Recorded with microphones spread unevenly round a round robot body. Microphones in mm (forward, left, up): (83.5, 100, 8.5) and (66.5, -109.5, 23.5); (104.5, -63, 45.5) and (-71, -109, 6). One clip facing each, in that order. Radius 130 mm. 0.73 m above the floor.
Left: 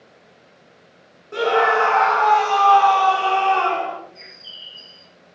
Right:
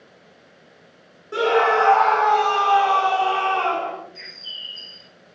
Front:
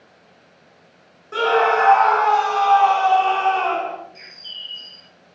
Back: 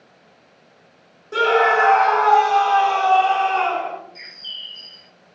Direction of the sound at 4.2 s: 90° right.